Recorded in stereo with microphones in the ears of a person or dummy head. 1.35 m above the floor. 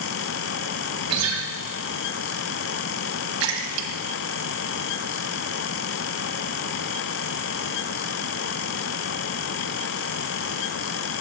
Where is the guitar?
75° right (ahead or behind), 2.0 m.